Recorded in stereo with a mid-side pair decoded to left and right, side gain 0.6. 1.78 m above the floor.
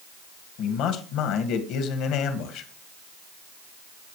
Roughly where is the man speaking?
Ahead left.